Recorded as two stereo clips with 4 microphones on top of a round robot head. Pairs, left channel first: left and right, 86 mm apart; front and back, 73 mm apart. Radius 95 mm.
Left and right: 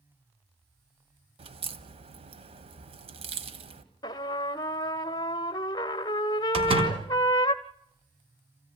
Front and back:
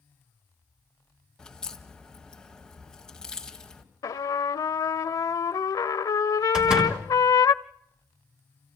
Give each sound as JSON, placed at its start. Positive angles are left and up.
{"t": 1.4, "sound": "a crack", "azimuth_deg": -85, "distance_m": 1.7}
{"t": 4.0, "sound": "a trumpet", "azimuth_deg": 35, "distance_m": 0.8}
{"t": 6.5, "sound": "a door slam", "azimuth_deg": -105, "distance_m": 4.0}